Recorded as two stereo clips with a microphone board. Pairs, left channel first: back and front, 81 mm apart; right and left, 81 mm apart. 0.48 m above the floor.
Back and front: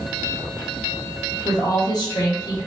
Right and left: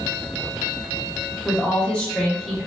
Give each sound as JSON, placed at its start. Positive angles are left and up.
{"t": 1.4, "sound": "a woman speaking", "azimuth_deg": -155, "distance_m": 1.6}